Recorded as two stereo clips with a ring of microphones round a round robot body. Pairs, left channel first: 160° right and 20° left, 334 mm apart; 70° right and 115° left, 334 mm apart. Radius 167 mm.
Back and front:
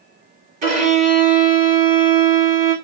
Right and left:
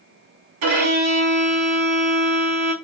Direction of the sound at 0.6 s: 90° left.